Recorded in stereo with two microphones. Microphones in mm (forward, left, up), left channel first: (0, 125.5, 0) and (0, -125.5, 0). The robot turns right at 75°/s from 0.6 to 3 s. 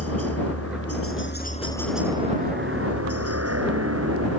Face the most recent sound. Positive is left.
turn(degrees=-100)